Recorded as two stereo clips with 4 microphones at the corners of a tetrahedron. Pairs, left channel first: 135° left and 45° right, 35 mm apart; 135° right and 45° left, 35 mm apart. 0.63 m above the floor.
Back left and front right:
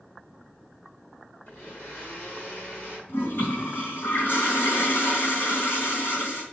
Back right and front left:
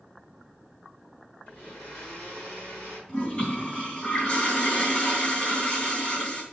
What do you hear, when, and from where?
1.5 s a blender: straight behind, 5 m
3.1 s a toilet flushing: 160° left, 3 m